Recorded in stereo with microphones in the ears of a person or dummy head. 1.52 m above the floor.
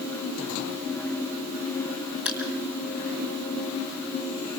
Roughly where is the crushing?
Centre.